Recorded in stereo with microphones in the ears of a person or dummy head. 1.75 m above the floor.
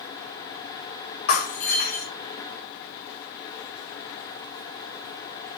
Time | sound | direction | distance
1.3 | breaking glass | 55° left (ahead or behind) | 3 m